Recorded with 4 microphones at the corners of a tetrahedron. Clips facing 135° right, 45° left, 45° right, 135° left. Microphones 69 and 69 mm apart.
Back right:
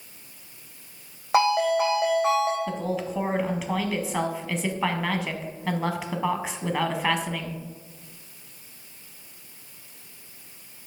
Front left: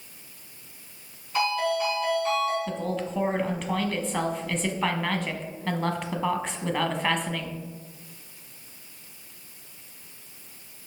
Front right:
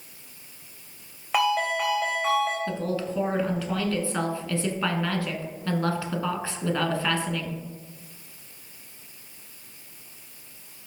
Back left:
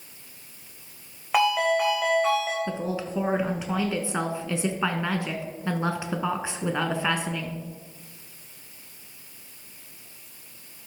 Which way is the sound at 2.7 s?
150° left.